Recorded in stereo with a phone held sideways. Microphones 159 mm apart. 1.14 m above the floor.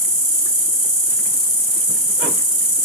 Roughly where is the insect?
Right.